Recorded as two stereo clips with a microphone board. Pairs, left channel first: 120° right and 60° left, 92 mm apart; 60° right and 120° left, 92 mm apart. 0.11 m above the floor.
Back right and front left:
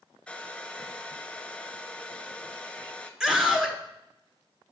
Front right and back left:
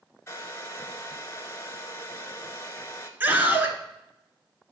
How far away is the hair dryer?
About 0.8 m.